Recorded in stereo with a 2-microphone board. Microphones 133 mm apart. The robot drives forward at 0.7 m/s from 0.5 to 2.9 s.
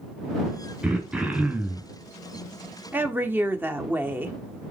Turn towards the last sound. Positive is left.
turn(degrees=-15)  # may be behind; listen again after turning